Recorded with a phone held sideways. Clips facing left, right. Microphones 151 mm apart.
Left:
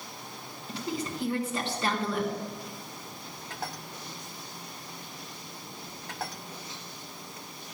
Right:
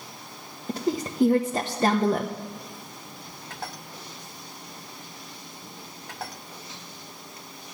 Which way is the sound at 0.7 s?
45° right (ahead or behind).